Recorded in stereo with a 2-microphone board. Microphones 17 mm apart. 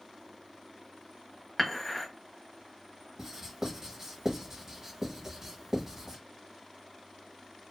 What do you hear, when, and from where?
1.6 s dishes clattering: 5° left (ahead or behind), 0.8 m
3.2 s writing: 20° right (ahead or behind), 0.8 m